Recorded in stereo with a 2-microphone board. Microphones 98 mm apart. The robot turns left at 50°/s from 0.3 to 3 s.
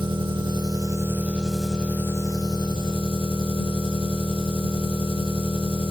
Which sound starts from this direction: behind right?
An engine running, at 0.0 s.